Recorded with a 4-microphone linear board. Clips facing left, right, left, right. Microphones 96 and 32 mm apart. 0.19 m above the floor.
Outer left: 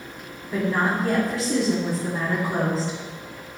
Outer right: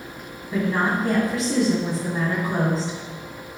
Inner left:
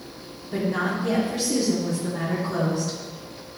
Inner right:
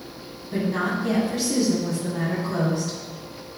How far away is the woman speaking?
About 1.4 m.